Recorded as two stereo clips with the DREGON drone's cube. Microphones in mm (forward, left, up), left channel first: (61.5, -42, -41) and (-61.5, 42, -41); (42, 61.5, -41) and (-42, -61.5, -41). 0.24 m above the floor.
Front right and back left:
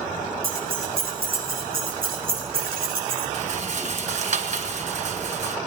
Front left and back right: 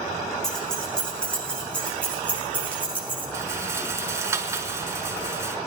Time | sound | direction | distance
0.4 | keys jangling | 140° left | 7 m
3.3 | a rattle | 165° left | 1.4 m